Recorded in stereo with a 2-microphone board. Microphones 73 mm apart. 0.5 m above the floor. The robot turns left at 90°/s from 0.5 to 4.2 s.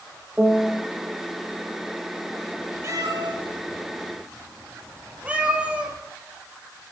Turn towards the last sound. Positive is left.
turn(degrees=-15)  # may be behind; listen again after turning